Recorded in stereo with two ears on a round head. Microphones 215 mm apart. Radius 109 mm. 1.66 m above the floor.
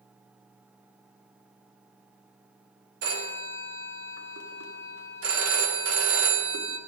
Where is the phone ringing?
60° right (ahead or behind), 2 m.